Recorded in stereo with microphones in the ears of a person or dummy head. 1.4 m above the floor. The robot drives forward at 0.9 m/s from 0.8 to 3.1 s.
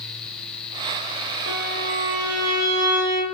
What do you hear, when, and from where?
1.5 s a violin: 55° right (ahead or behind), 1.1 m; by 3.3 s 25° right (ahead or behind), 2 m